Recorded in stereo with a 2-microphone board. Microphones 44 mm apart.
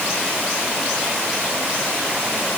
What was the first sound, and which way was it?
Only background noise.